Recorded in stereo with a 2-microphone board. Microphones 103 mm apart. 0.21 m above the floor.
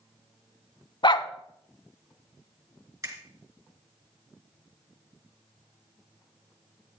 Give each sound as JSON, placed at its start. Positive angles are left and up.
{"t": 1.0, "sound": "a dog barking", "side_deg": 50, "distance_m": 0.6}
{"t": 3.0, "sound": "a finger snap", "side_deg": -35, "distance_m": 2.5}